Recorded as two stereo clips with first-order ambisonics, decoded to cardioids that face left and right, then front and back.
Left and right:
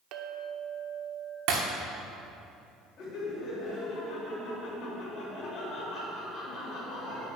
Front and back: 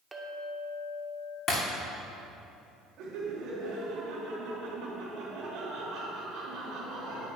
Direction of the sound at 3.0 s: 135° left.